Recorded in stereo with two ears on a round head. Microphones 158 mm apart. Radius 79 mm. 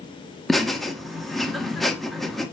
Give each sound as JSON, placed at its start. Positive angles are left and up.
{"t": 0.5, "sound": "laughter", "side_deg": 0, "distance_m": 0.5}